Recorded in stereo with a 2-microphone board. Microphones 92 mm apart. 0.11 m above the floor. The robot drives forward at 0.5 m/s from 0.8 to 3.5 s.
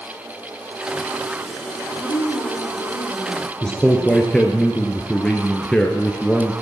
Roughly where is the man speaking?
Centre.